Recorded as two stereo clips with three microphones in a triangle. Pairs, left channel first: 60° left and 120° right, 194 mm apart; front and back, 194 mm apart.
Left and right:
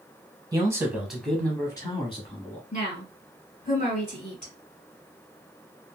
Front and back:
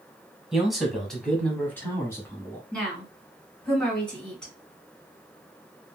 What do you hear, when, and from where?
0.5 s a man speaking: 100° right, 1.1 m; by 2.6 s 65° left, 1.3 m
2.7 s a woman speaking: 85° left, 1.9 m